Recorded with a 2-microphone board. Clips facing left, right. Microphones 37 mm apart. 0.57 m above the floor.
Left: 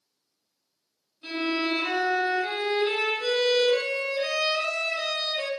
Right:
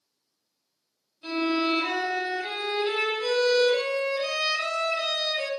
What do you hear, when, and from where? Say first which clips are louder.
1.2 s a violin: right 2 dB; centre (ahead or behind), 1.4 m